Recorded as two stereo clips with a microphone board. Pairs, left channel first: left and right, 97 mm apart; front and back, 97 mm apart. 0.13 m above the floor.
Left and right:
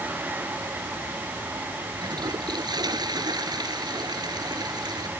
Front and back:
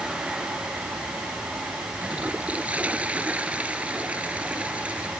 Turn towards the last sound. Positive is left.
turn(degrees=-110)